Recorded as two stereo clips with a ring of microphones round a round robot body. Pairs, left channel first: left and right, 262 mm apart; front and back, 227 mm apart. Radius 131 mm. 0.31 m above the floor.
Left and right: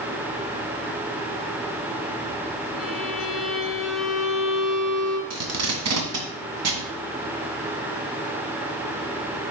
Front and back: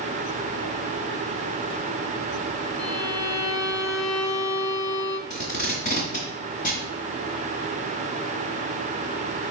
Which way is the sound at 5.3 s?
60° right.